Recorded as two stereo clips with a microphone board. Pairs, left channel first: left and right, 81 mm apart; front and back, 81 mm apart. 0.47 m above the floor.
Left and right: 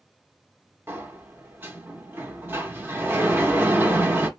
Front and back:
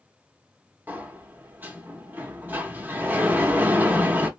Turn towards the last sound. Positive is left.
turn(degrees=-130)